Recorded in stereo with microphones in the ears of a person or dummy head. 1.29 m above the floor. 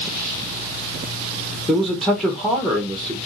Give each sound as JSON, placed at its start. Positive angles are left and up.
{"t": 1.7, "sound": "a man speaking", "side_deg": 0, "distance_m": 1.0}